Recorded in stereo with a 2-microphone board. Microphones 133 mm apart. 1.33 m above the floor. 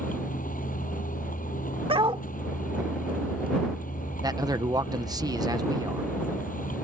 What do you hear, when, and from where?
0.0 s a vehicle: 85° left
1.9 s a dog barking: 40° right (ahead or behind)
4.2 s a man speaking: 30° right (ahead or behind)